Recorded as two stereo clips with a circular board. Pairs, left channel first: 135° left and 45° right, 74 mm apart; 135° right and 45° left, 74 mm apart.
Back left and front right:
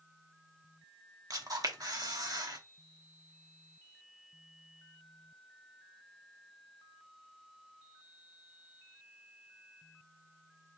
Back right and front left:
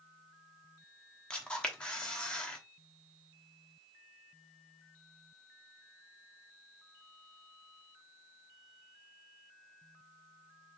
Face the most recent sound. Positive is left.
turn(degrees=-60)